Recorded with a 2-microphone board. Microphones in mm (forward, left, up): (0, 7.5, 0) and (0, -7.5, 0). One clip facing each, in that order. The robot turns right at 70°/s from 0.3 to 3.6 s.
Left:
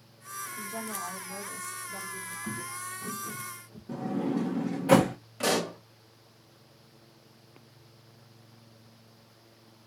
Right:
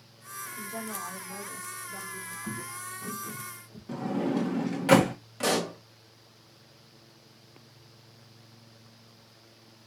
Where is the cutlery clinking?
I don't hear cutlery clinking.